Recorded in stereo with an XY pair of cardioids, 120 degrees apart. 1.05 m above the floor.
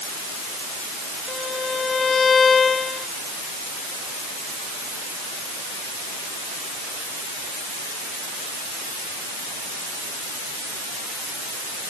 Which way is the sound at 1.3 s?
30° left.